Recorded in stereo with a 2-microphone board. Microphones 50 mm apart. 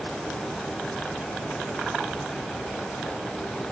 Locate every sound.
Only background noise.